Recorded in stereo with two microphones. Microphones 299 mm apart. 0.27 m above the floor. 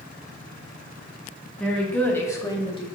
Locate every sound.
1.6 s a woman speaking: centre (ahead or behind), 2 m; by 2.9 s 20° left (ahead or behind), 1.3 m